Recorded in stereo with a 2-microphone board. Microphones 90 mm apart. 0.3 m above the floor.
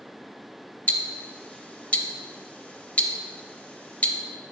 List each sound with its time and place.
0.9 s ticking: 15° left (ahead or behind), 0.5 m